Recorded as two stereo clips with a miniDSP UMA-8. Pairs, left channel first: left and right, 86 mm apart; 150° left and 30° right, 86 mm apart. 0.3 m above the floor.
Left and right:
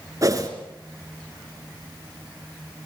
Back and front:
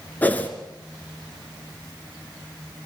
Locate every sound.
0.2 s a whoosh: 140° right, 3.5 m